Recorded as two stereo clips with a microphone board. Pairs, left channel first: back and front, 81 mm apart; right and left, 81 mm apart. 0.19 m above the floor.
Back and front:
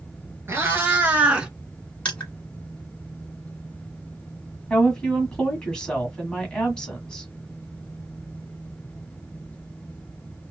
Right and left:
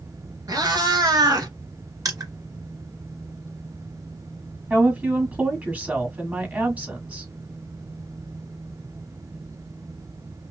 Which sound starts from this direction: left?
Crushing, at 2.0 s.